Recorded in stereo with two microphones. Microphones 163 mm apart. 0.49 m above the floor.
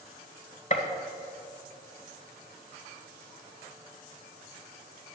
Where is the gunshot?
50° left (ahead or behind), 1.8 m.